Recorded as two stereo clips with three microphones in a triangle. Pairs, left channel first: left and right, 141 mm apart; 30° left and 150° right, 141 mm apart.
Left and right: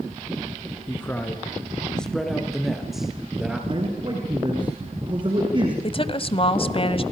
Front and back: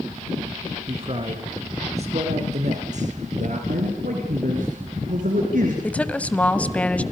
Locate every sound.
0.9 s a man speaking: 165° left, 3 m; by 3.6 s 175° right, 4.5 m
3.7 s a man speaking: 145° right, 4 m
5.8 s a woman speaking: 105° left, 1.3 m